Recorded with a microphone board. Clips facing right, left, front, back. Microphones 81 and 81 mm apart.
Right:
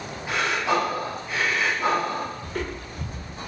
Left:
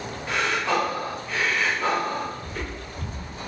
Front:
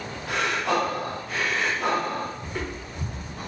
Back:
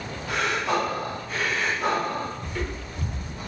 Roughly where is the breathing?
Ahead.